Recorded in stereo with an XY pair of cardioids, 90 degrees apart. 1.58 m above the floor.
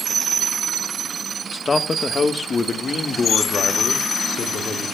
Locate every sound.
1.5 s a man speaking: 30° left, 1.5 m; by 5.0 s 55° left, 3.5 m